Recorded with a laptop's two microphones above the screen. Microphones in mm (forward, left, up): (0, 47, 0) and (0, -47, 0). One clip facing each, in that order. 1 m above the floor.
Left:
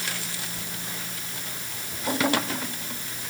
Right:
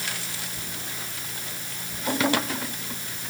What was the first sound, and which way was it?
Only background noise.